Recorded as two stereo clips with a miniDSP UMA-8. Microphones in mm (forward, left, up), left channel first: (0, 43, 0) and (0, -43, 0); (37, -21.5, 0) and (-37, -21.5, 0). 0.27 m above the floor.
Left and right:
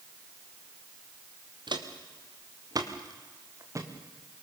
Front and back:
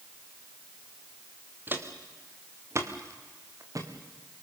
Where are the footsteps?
115° right, 3 m; by 3.9 s 140° right, 3.5 m.